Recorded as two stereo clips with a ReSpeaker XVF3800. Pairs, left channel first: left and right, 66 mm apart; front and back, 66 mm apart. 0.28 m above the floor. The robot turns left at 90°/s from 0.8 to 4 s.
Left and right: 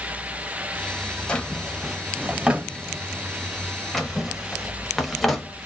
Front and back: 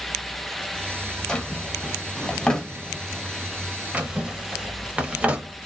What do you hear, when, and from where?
1.3 s a drawer: 55° left, 0.6 m; by 5.5 s 170° left, 0.6 m